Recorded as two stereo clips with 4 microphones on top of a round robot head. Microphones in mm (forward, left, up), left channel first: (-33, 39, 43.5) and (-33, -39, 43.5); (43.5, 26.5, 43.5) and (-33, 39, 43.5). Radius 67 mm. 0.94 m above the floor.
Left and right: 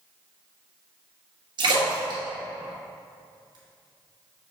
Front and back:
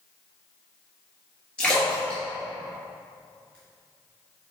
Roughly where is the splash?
Right.